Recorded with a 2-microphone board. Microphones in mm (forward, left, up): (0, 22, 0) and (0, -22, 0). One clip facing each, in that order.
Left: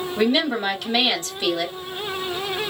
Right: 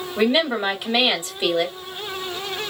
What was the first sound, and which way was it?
A woman speaking, 20° right (ahead or behind).